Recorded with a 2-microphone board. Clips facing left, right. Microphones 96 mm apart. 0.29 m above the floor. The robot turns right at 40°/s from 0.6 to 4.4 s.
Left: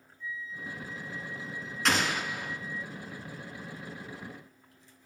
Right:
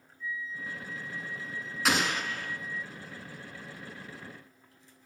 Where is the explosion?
5° right (ahead or behind), 2 m; by 2.6 s 20° left (ahead or behind), 2 m.